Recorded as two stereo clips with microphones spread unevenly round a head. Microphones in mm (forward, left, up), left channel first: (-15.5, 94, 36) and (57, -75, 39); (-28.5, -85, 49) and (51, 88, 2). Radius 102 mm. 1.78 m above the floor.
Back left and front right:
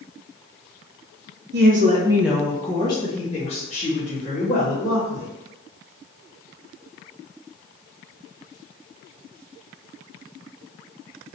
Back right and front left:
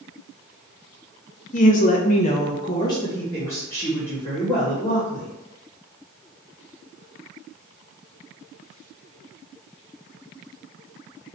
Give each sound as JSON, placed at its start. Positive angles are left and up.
{"t": 1.5, "sound": "a woman speaking", "azimuth_deg": -90, "distance_m": 0.5}